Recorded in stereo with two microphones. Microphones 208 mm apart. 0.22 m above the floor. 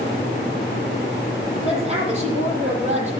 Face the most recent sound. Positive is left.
turn(degrees=-30)  # may be behind; listen again after turning